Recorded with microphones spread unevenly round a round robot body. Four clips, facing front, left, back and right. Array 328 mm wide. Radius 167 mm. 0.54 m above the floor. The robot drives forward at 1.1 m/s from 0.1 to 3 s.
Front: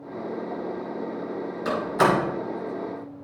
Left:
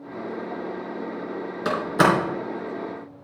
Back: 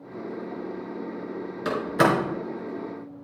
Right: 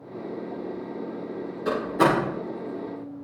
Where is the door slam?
110° left, 4.5 m; by 3.2 s 125° left, 5.5 m.